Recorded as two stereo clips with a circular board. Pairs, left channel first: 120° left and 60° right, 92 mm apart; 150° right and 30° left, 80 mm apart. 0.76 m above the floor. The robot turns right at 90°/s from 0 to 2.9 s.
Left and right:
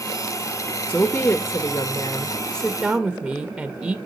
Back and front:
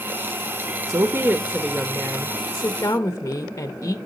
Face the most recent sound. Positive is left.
turn(degrees=-140)